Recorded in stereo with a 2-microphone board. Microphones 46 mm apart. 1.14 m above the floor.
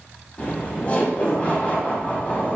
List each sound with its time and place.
0.4 s laughter: 25° left (ahead or behind), 0.5 m